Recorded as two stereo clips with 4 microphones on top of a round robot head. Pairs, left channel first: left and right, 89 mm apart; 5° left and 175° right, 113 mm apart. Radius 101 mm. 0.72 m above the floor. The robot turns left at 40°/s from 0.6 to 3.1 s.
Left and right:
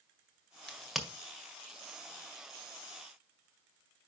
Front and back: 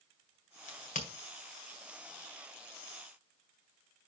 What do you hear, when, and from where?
0.7 s a crack: 10° left, 1.7 m; by 1.1 s 5° right, 1.7 m